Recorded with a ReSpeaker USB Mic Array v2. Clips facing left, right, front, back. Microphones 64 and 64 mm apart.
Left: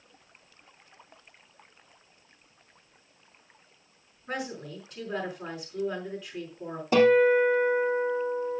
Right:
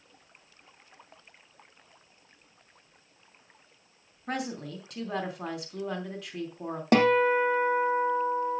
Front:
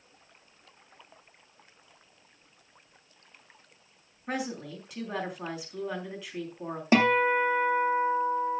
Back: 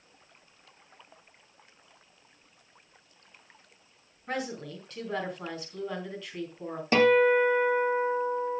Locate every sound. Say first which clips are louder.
4.3 s a woman speaking: right 1 dB, even; 80° right, 4 m
6.9 s a guitar: left 3 dB, back 2 dB; 70° right, 2.5 m